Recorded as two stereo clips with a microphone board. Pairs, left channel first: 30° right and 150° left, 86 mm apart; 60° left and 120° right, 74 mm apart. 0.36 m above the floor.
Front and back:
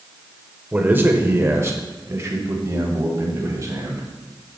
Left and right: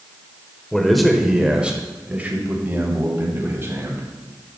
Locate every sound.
0.7 s a man speaking: 130° left, 1.1 m; by 4.0 s 170° right, 2.5 m